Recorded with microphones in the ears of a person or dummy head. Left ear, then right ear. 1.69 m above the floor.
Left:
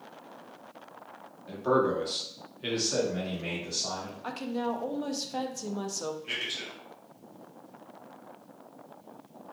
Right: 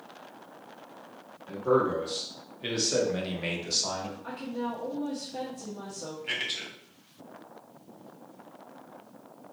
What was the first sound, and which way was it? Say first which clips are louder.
A man speaking: right 1 dB; 35° left (ahead or behind).